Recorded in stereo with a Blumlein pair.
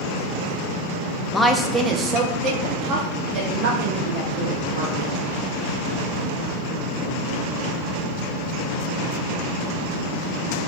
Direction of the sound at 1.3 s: 15° left.